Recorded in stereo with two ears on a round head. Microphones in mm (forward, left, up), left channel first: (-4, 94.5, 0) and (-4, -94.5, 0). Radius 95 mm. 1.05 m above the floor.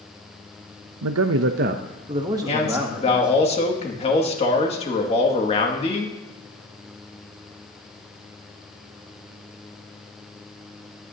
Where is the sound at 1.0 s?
80° right, 0.6 m; by 3.5 s 5° right (ahead or behind), 1.8 m.